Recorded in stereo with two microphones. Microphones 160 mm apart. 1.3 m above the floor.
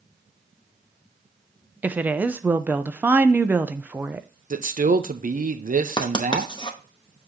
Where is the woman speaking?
10° right (ahead or behind), 0.6 m.